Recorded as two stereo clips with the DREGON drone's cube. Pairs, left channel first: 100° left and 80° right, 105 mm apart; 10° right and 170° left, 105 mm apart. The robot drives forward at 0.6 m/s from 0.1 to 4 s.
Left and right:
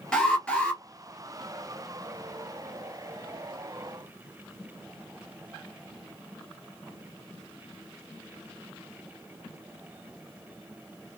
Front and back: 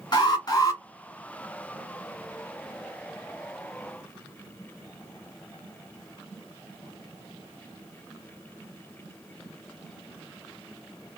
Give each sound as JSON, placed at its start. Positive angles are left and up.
{"t": 0.1, "sound": "an alarm", "azimuth_deg": 20, "distance_m": 2.0}